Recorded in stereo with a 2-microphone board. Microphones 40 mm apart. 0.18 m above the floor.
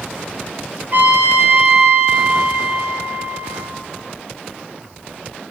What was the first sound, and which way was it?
A trumpet, 50° right (ahead or behind).